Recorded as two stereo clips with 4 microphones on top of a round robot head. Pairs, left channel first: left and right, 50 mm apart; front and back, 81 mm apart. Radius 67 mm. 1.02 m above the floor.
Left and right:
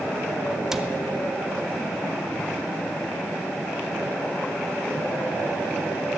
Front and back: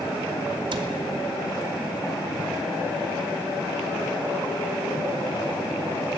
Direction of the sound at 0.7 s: 170° right.